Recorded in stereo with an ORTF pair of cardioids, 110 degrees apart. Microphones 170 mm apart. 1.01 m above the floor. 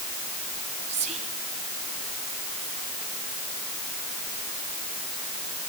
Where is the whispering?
45° right, 2.5 m.